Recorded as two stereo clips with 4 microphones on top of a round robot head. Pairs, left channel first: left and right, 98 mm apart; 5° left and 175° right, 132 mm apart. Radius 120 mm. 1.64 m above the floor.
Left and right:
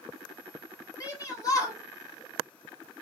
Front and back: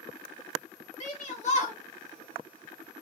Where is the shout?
35° left, 3 m.